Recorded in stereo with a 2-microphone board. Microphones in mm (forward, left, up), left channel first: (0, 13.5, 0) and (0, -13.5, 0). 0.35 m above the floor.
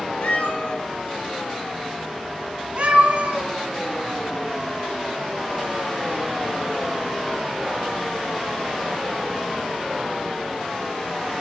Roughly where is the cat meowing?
Left.